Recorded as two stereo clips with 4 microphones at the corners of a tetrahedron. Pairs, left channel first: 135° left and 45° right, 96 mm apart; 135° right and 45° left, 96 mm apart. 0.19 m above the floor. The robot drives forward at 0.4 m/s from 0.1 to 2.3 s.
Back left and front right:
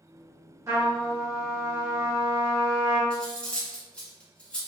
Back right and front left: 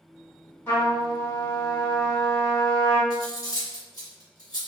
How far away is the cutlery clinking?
About 1.1 m.